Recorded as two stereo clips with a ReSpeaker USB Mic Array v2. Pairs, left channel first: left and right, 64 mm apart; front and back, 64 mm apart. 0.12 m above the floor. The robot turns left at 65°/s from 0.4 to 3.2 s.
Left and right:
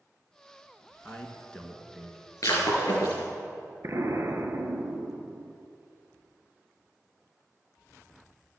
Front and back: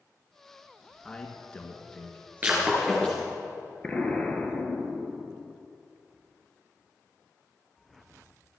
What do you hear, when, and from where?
1.1 s a man speaking: 65° left, 1.6 m; by 3.3 s 75° right, 1.6 m
2.4 s breaking glass: 115° left, 4.5 m; by 3.2 s 65° left, 4.5 m
3.8 s an explosion: 70° right, 1.3 m